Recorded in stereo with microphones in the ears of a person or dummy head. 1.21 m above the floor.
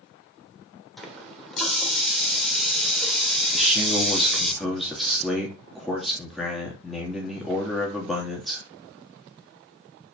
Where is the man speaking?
Centre (ahead or behind), 3 m.